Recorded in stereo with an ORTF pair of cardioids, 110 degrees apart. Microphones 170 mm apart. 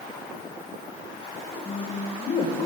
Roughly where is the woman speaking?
Ahead left.